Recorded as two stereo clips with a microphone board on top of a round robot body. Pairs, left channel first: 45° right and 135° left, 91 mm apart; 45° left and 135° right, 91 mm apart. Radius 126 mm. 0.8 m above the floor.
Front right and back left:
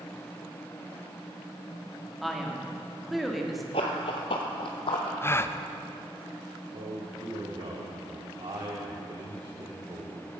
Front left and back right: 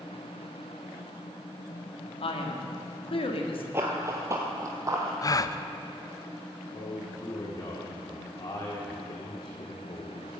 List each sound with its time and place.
2.2 s a man speaking: 45° left, 2 m
3.7 s running footsteps: 70° right, 1.0 m; by 5.1 s 80° right, 1.9 m
5.2 s a gasp: 10° left, 0.7 m
6.7 s a man speaking: 95° left, 1.9 m